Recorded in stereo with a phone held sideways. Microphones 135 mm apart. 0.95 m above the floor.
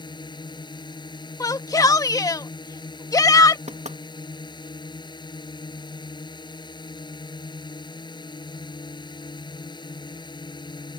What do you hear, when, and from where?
0.0 s a drone: 35° left (ahead or behind)
1.4 s a shout: 25° left (ahead or behind)
3.7 s knocking: 55° right (ahead or behind)